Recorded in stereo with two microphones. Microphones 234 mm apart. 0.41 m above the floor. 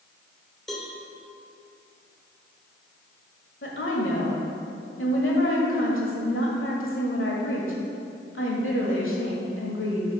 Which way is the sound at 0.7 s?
Centre (ahead or behind).